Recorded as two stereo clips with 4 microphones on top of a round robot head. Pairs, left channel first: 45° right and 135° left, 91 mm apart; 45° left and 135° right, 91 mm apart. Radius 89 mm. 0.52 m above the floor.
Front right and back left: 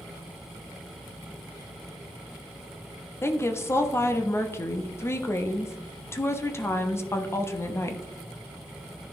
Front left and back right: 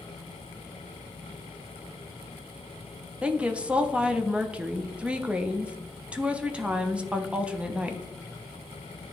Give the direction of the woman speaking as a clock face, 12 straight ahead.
2 o'clock.